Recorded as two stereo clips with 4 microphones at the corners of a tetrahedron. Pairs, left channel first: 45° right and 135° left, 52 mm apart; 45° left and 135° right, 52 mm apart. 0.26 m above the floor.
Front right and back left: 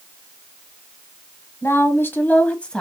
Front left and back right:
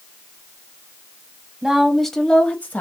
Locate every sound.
1.6 s a woman speaking: 55° right, 1.4 m; by 2.8 s 25° left, 1.1 m